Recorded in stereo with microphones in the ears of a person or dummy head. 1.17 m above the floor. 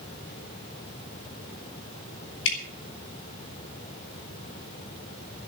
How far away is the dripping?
About 4 m.